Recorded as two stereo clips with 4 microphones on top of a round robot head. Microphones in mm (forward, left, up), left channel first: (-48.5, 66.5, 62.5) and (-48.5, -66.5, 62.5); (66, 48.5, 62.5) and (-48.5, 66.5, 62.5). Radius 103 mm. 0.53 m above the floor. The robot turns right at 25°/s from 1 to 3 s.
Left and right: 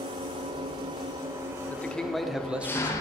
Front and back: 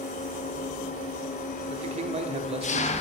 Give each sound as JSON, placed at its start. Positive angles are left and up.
{"t": 0.0, "sound": "an engine running", "azimuth_deg": -30, "distance_m": 0.7}
{"t": 1.7, "sound": "a man speaking", "azimuth_deg": 165, "distance_m": 1.2}